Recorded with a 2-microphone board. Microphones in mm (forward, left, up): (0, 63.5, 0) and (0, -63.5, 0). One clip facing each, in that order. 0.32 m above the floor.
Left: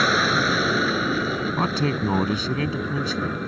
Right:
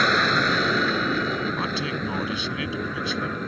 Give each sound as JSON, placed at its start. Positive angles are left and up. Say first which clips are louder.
{"t": 0.0, "sound": "an aircraft", "louder": "left 1 dB", "side_deg": 5}
{"t": 1.6, "sound": "a man speaking", "louder": "left 5 dB", "side_deg": 45}